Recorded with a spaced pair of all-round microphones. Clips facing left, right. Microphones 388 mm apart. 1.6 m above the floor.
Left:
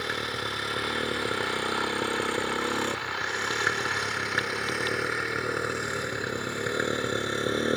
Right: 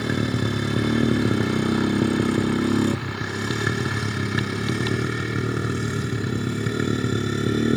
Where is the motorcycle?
65° right (ahead or behind); by 7.8 s 40° right (ahead or behind).